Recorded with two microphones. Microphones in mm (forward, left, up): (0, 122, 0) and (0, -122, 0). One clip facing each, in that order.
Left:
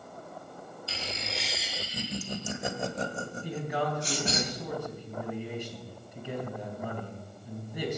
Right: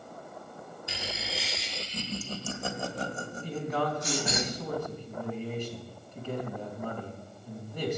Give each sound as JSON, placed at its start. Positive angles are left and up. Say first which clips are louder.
{"t": 0.9, "sound": "laughter", "louder": "even", "side_deg": -15, "distance_m": 0.9}
{"t": 3.4, "sound": "a man speaking", "louder": "right 2 dB", "side_deg": 10, "distance_m": 3.5}